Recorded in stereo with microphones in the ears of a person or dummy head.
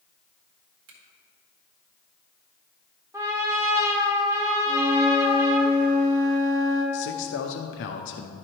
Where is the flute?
40° right (ahead or behind), 1.5 m.